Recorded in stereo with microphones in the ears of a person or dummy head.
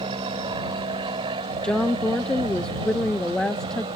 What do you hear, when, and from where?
0.0 s an aircraft: 25° right (ahead or behind)
1.6 s a woman speaking: 5° left (ahead or behind)